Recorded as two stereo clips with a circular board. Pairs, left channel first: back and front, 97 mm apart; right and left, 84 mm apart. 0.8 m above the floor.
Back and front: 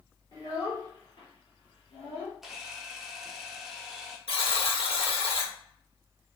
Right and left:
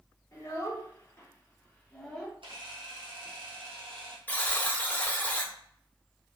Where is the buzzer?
160° right, 0.8 m.